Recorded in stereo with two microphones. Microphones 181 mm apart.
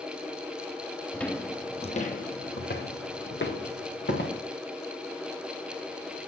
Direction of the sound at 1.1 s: 5° left (ahead or behind).